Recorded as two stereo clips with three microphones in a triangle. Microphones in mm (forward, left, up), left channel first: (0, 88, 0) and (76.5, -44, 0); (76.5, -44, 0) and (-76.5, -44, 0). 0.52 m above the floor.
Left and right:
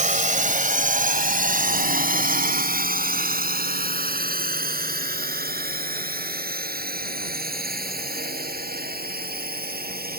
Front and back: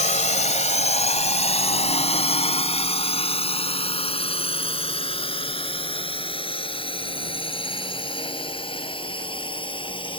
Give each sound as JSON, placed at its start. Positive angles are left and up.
{"t": 0.0, "sound": "a drone", "azimuth_deg": -35}